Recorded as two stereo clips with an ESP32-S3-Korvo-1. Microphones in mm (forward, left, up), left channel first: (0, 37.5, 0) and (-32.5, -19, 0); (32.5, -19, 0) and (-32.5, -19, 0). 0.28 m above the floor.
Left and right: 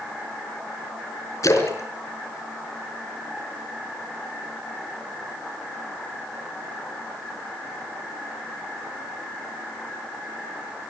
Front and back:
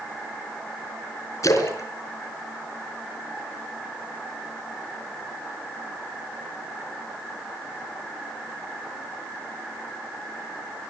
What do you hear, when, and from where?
1.4 s a splash: 30° left, 4 m